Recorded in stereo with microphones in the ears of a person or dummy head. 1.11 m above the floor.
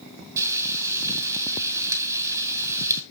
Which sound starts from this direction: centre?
Frying, at 0.4 s.